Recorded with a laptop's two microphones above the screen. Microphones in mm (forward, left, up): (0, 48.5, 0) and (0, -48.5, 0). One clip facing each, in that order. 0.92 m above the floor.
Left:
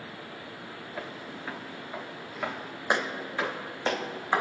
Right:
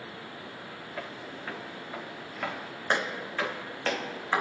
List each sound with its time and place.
1.0 s footsteps: 5° left (ahead or behind), 6.5 m; by 4.4 s 20° left (ahead or behind), 3.5 m